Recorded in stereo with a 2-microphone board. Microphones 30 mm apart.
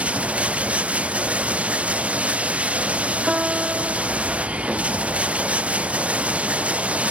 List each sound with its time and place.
0.0 s running water: 50° right (ahead or behind)
3.3 s a piano: 30° right (ahead or behind)